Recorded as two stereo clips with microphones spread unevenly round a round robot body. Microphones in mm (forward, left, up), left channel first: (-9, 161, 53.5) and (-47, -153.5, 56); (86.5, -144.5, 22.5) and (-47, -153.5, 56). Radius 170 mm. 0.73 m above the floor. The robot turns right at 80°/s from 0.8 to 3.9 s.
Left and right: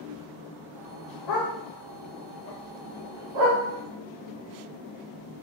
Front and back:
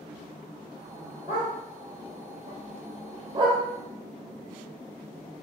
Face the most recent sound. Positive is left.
turn(degrees=-85)